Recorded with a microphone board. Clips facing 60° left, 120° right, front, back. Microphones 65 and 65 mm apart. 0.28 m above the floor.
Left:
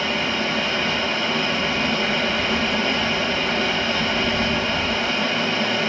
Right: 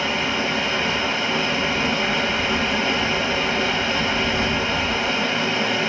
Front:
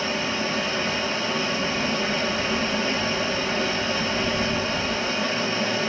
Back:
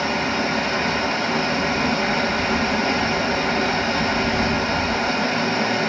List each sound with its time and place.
0.0 s running water: 160° left, 0.8 m